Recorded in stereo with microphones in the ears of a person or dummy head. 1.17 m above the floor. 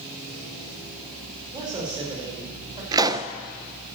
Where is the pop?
20° right (ahead or behind), 0.7 m.